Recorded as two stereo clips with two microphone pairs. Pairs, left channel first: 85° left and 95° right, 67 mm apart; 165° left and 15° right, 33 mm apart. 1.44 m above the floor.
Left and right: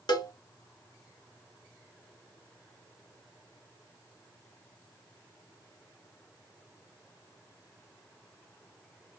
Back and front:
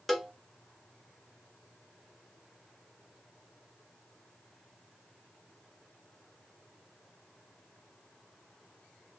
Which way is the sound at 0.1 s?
80° left.